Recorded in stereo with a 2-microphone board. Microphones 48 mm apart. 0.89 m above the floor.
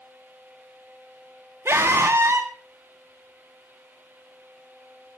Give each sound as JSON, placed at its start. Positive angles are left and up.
{"t": 1.6, "sound": "a scream", "side_deg": -60, "distance_m": 1.6}